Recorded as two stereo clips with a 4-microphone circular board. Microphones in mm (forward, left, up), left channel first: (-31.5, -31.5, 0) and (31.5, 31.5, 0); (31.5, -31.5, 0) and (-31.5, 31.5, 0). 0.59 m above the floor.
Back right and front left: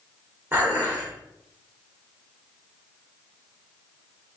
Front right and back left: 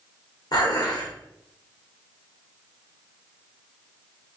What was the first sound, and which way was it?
Dishes clattering, 20° right.